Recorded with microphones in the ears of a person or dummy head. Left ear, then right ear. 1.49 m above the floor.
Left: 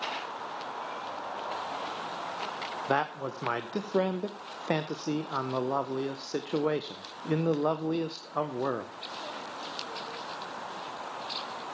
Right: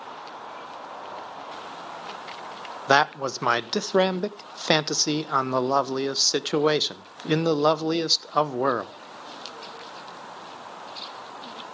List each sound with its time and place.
2.9 s a man speaking: 70° right (ahead or behind), 0.7 m